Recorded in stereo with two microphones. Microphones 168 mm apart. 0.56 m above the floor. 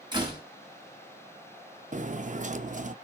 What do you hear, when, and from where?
0.1 s a door slam: 25° right (ahead or behind), 3 m
1.9 s cutlery clinking: 50° right (ahead or behind), 0.6 m